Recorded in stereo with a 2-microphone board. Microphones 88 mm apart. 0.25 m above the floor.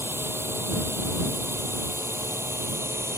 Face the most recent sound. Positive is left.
turn(degrees=-30)  # may be behind; listen again after turning